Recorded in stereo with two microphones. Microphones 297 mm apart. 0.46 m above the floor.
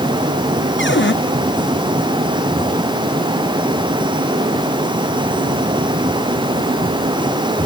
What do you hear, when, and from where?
0.8 s a cupboard door: 40° left (ahead or behind)